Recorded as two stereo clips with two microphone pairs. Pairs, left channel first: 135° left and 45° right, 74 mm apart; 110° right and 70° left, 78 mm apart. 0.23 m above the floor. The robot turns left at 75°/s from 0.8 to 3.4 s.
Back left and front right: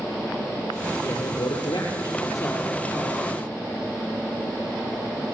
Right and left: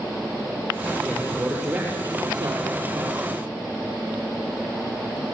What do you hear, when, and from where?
1.0 s a man speaking: 165° right, 5.5 m; by 3.4 s 20° left, 5.5 m